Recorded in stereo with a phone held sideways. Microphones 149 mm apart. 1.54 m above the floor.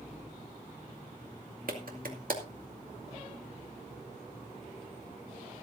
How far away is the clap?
About 2 m.